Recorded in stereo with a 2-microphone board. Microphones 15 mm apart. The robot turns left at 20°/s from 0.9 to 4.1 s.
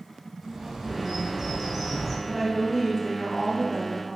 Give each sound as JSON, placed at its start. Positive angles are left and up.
{"t": 0.4, "sound": "a bird", "side_deg": -25, "distance_m": 0.8}
{"t": 2.3, "sound": "a woman speaking", "azimuth_deg": -15, "distance_m": 1.3}